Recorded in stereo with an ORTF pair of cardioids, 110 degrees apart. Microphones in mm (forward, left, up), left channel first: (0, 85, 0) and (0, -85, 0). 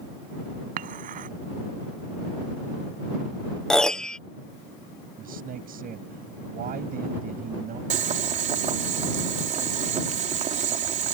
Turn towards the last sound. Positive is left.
turn(degrees=-45)